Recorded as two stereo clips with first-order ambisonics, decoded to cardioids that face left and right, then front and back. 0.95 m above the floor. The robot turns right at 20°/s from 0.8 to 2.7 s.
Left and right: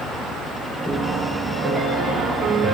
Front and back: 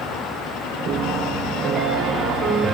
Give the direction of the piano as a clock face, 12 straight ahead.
6 o'clock.